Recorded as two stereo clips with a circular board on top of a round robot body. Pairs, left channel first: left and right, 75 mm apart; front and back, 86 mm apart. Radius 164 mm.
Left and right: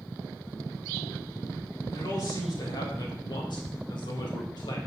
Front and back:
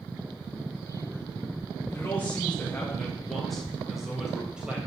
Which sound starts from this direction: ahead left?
A man speaking, at 1.9 s.